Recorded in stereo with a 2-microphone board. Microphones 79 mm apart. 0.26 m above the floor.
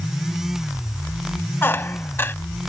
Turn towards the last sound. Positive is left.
turn(degrees=30)  # may be behind; listen again after turning